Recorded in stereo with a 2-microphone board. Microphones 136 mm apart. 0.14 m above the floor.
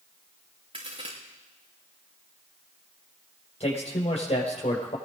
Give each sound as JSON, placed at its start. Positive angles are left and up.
{"t": 0.7, "sound": "a crack", "side_deg": -45, "distance_m": 5.5}
{"t": 3.6, "sound": "a man speaking", "side_deg": 55, "distance_m": 5.5}